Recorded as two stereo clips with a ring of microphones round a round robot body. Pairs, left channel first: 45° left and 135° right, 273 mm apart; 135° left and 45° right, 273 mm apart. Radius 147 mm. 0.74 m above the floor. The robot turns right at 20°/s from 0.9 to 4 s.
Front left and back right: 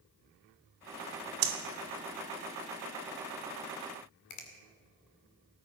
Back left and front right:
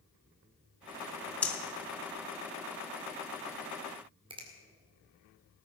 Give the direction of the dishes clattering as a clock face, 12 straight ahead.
I don't hear dishes clattering.